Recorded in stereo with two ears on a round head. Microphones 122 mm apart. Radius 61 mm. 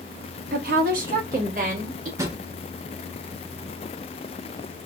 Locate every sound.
0.5 s a woman speaking: 70° right (ahead or behind), 0.7 m; by 2.1 s 60° right (ahead or behind), 1.5 m
2.2 s a drawer: 20° right (ahead or behind), 0.5 m